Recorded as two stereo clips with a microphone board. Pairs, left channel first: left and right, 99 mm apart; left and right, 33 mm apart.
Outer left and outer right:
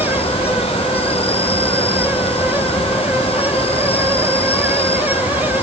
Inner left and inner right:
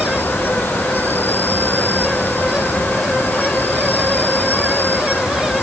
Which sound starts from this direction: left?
An insect, at 0.0 s.